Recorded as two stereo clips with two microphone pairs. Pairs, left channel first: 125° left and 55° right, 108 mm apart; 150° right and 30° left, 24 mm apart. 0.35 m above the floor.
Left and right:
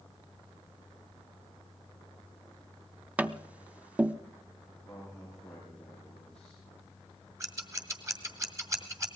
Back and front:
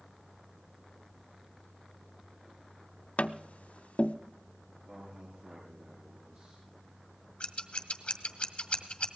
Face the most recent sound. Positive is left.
turn(degrees=-115)